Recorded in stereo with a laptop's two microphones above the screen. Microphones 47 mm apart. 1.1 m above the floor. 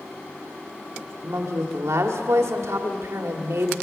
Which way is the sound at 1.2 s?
85° right.